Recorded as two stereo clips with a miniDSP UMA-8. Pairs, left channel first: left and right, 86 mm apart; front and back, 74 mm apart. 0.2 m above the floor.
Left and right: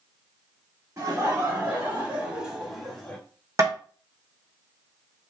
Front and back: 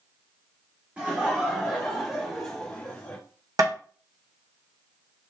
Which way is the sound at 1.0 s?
120° right.